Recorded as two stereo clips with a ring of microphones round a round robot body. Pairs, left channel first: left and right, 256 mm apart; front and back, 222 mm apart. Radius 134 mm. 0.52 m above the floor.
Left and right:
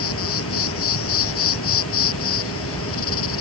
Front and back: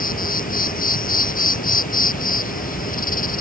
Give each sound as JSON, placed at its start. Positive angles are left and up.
{"t": 0.0, "sound": "an insect", "azimuth_deg": 50}